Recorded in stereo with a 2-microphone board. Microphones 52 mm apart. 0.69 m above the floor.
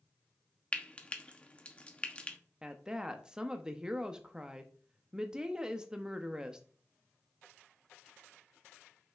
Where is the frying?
25° left (ahead or behind), 0.9 m.